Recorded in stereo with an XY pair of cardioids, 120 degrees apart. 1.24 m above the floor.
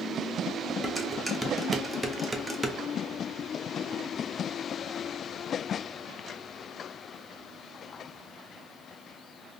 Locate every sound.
0.8 s dishes clattering: 5° right, 0.6 m